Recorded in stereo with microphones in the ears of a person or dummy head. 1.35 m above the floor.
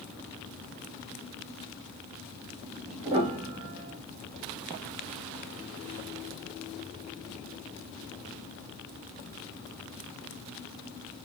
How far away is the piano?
About 1.1 m.